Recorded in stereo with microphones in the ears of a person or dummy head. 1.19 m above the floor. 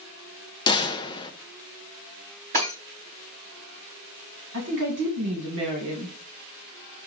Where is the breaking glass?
45° right (ahead or behind), 3.5 m.